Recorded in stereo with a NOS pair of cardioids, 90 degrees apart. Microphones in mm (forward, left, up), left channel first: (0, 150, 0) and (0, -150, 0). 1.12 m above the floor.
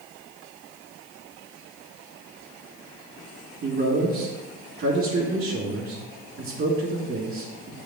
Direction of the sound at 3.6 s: 45° right.